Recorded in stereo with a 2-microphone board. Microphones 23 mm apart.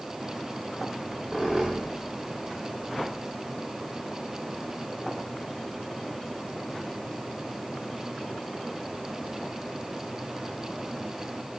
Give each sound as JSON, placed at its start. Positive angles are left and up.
{"t": 0.9, "sound": "a squeak", "side_deg": -15, "distance_m": 9.5}